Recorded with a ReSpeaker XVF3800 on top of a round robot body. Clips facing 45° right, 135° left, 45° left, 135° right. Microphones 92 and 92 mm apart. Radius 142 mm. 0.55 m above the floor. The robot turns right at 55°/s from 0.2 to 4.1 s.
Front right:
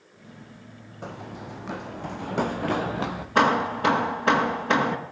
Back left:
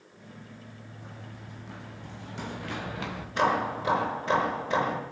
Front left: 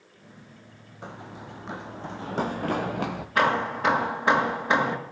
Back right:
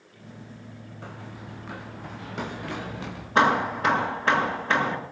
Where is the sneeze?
No sneeze in this recording.